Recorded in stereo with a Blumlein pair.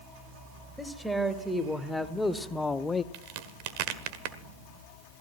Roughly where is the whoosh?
No whoosh in this recording.